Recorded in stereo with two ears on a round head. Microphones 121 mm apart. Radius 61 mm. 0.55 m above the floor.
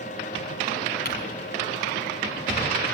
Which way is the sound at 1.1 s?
80° left.